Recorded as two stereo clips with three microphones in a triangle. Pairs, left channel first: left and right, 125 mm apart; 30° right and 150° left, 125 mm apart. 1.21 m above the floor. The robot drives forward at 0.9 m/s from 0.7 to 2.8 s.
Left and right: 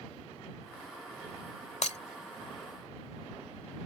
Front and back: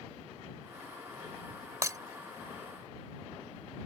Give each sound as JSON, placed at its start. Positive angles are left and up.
{"t": 1.8, "sound": "breaking glass", "azimuth_deg": 90}